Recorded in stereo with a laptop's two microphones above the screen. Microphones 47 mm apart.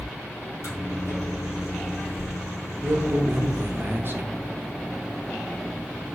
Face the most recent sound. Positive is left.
turn(degrees=-45)  # may be behind; listen again after turning